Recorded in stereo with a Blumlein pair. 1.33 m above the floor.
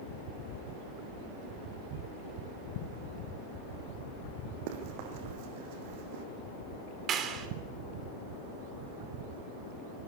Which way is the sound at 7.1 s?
30° right.